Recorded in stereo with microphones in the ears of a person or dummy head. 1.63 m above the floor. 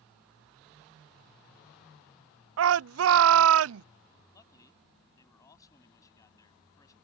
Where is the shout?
75° right (ahead or behind).